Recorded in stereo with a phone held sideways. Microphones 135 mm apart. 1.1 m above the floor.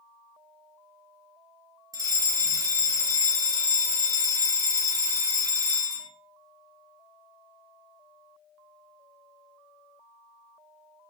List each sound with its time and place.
1.9 s a fire alarm: 25° right (ahead or behind), 1.2 m